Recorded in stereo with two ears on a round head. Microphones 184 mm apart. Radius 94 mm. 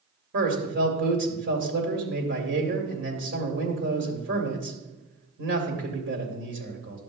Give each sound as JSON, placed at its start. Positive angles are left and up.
{"t": 0.3, "sound": "a man speaking", "side_deg": -60, "distance_m": 2.5}